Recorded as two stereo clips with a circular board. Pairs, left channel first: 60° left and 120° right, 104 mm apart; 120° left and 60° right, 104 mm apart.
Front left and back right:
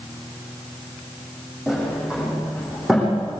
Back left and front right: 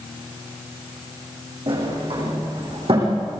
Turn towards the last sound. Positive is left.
turn(degrees=-35)